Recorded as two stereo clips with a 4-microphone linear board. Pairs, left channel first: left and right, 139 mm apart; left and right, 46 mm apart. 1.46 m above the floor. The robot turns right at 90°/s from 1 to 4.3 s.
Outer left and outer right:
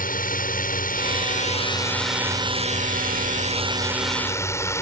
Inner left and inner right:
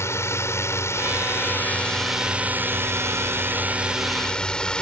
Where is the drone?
80° left; by 4.8 s 20° left.